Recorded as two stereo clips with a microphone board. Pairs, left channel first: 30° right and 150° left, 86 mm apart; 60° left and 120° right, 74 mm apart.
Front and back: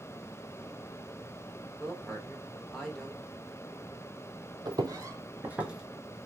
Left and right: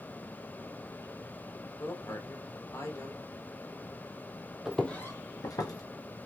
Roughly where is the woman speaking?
Ahead left.